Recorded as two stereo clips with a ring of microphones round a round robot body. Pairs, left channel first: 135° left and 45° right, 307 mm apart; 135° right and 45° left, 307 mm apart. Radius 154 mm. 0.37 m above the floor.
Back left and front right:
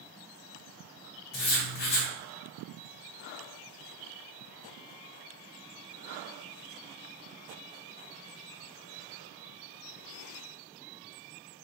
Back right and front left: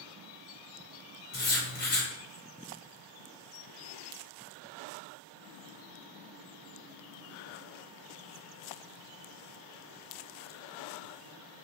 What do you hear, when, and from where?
1.3 s writing: 165° left, 2.0 m